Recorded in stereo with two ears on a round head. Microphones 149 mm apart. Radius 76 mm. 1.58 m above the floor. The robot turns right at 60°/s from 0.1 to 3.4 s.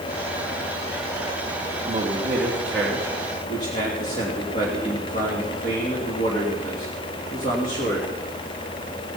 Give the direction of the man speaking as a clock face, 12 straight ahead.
2 o'clock.